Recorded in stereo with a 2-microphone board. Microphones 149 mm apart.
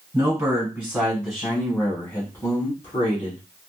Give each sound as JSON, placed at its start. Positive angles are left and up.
{"t": 0.1, "sound": "a man speaking", "side_deg": -20, "distance_m": 1.6}